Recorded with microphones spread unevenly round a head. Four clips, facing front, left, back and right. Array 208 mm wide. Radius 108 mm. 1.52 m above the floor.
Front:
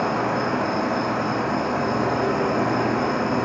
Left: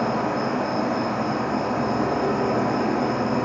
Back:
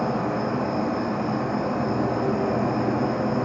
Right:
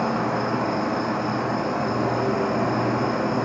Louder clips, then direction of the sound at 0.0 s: Even, front 2 dB; 5° left.